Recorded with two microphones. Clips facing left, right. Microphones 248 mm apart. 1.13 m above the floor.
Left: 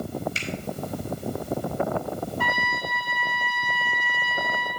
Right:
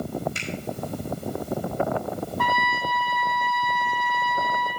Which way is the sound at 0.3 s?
60° right (ahead or behind).